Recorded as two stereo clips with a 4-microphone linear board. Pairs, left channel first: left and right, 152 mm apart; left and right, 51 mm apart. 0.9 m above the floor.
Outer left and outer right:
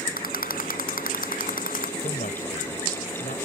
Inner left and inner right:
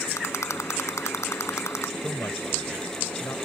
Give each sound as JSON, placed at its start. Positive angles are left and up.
{"t": 0.2, "sound": "a rattle", "side_deg": 70}
{"t": 2.0, "sound": "a man speaking", "side_deg": 70}